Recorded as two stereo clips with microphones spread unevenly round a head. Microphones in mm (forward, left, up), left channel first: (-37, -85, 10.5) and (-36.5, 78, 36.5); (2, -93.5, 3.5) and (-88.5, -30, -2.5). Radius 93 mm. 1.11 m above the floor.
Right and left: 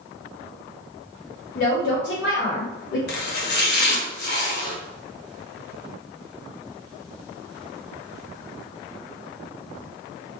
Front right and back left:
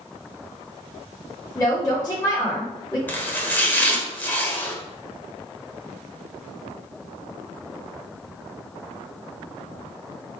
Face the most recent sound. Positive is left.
turn(degrees=-100)